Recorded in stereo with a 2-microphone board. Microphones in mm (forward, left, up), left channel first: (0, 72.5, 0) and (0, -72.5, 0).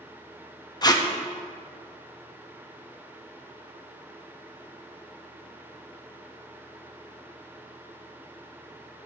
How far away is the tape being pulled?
About 0.6 m.